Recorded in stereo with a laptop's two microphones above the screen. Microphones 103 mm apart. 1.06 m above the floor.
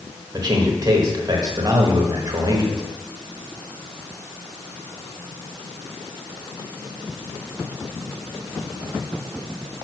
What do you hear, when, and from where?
0.3 s a man speaking: 40° right (ahead or behind), 1.2 m